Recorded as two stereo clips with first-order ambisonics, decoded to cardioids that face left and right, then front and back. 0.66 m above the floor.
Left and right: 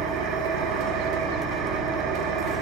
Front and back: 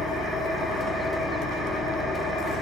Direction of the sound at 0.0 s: 85° right.